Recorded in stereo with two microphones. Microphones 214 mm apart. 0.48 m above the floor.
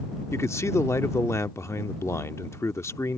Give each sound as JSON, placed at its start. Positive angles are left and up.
{"t": 0.3, "sound": "a man speaking", "side_deg": 15}